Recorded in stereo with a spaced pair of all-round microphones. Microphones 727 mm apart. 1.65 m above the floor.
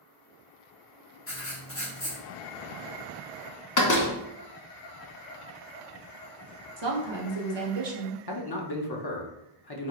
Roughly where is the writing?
Centre.